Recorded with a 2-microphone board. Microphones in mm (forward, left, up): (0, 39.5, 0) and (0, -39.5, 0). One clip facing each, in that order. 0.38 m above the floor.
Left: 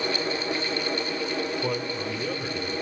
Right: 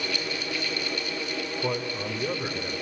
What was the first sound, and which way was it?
A man speaking, 5° left (ahead or behind).